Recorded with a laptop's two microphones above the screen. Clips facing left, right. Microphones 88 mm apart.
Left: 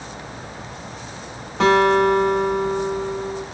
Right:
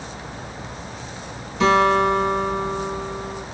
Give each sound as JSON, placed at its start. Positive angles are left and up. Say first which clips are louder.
{"t": 1.6, "sound": "a guitar", "louder": "left 1 dB", "side_deg": 65, "distance_m": 1.5}